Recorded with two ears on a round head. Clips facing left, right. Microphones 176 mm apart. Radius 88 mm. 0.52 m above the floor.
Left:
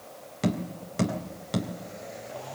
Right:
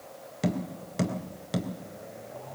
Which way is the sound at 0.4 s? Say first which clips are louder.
Left 1 dB; centre (ahead or behind).